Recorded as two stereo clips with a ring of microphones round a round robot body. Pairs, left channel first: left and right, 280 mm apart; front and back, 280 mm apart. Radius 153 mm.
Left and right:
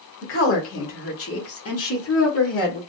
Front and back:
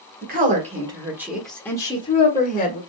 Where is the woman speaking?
130° left, 1.4 m; by 2.8 s 50° left, 1.6 m.